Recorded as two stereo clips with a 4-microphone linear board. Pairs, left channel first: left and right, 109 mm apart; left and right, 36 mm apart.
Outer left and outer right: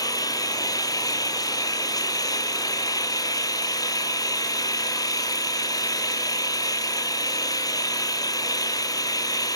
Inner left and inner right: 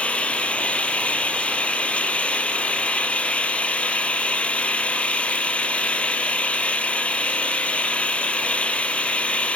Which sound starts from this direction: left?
An engine running, at 0.0 s.